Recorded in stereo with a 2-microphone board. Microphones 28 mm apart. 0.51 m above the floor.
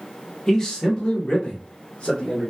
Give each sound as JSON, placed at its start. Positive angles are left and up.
{"t": 0.5, "sound": "a man speaking", "side_deg": 20, "distance_m": 0.9}